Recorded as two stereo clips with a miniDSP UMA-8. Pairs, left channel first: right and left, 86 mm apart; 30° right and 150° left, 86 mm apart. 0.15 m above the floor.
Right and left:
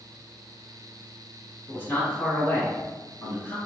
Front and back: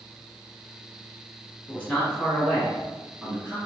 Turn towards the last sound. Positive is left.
turn(degrees=-155)